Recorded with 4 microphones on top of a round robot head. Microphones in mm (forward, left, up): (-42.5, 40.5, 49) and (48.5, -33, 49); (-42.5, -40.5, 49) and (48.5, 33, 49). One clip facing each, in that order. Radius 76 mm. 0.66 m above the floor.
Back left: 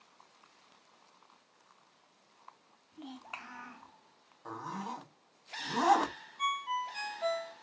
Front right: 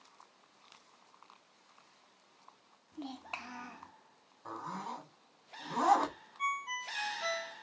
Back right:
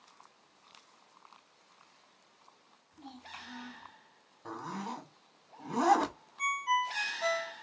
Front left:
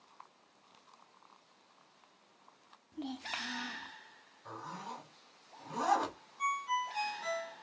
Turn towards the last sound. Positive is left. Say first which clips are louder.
# back left 4 dB, back right 3 dB
turn(degrees=-165)